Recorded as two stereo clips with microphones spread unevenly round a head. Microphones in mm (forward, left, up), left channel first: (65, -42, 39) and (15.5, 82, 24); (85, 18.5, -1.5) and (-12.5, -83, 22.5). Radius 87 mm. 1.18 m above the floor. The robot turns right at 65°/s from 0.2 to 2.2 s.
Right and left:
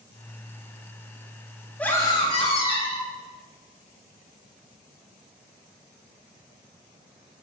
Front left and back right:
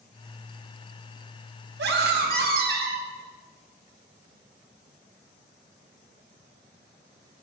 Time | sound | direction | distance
1.8 | a scream | 150° right | 1.4 m